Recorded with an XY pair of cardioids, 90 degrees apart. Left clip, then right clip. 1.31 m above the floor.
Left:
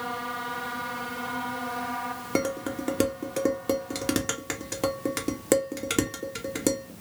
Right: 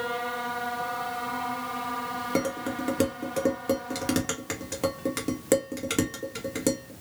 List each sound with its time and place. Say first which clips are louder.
2.4 s dishes clattering: left 2 dB; 15° left, 1.3 m